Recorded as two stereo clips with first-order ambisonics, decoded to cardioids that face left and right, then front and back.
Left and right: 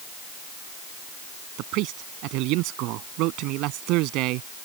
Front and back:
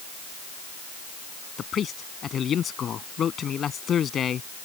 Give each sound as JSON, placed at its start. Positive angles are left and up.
{"t": 1.6, "sound": "a man speaking", "azimuth_deg": -65}